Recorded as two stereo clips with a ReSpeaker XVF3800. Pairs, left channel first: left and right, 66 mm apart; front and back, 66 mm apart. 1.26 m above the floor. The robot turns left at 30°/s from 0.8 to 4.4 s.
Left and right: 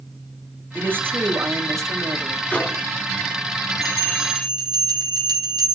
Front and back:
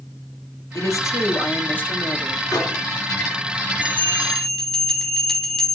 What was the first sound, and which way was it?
A woman speaking, 30° right.